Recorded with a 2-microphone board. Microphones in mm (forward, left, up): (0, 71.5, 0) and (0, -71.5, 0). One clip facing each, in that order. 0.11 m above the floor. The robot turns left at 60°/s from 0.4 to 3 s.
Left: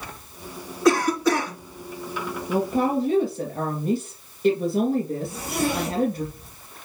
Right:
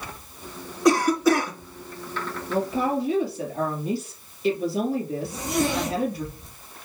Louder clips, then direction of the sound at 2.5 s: Left 2 dB; 100° left.